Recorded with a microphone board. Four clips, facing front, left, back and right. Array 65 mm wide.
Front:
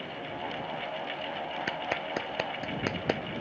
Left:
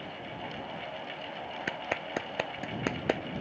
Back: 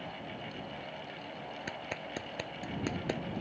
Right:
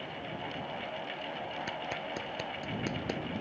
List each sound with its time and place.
1.7 s a clap: 50° left